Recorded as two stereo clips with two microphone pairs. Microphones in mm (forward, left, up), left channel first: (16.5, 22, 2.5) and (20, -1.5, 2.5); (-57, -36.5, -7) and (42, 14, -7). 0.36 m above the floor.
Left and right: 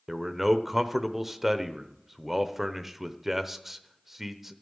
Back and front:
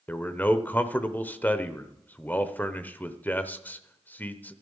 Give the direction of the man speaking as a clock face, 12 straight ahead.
5 o'clock.